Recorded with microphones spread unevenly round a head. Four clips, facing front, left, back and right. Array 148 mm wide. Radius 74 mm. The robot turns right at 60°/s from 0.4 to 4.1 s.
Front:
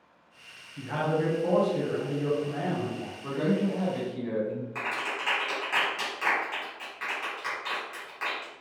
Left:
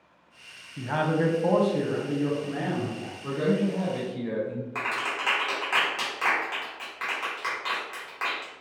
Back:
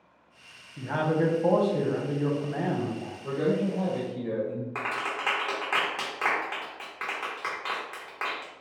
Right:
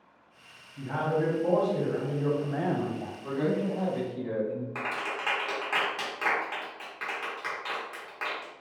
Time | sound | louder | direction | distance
0.8 | a man speaking | left 3 dB, back 2 dB | 105° left | 0.7 m
3.2 | a man speaking | left 3 dB, back 1 dB | 10° left | 1.4 m
4.8 | a clap | left 3 dB, back 2 dB | straight behind | 1.0 m